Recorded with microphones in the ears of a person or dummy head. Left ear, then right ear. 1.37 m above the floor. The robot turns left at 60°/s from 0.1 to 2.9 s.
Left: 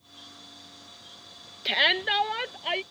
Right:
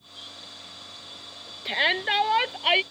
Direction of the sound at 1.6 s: 10° left.